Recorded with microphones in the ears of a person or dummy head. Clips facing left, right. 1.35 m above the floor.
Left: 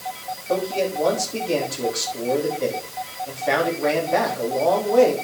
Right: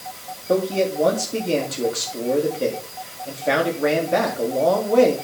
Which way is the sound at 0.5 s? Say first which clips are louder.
Right 3 dB; 30° right (ahead or behind).